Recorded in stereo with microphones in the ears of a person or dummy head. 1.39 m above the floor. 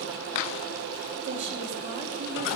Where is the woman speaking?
30° right (ahead or behind), 3.5 m.